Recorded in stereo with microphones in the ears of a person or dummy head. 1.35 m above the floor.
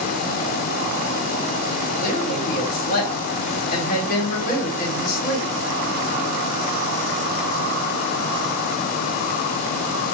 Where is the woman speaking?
45° left (ahead or behind), 2.5 m.